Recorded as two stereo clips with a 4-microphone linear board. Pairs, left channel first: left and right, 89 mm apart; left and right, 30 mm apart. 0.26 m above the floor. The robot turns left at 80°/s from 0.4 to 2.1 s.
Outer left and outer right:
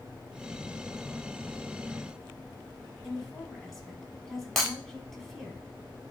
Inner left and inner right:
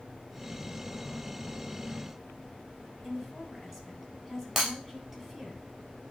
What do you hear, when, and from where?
3.0 s a woman speaking: 5° left (ahead or behind), 2.5 m
4.6 s breaking glass: centre (ahead or behind), 2.5 m